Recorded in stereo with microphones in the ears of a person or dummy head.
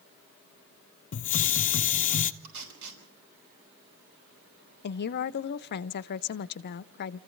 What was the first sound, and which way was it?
A hiss, 40° left (ahead or behind).